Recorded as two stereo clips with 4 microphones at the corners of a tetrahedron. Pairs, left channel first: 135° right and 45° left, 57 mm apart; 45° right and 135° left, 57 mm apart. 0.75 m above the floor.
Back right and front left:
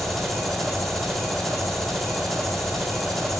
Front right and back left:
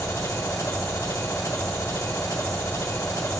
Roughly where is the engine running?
Ahead right.